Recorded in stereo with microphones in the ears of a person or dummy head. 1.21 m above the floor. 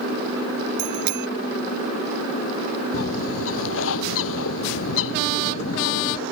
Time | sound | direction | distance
0.8 | a bicycle bell | 60° right (ahead or behind) | ?
2.9 | a bird | 75° left (ahead or behind) | ?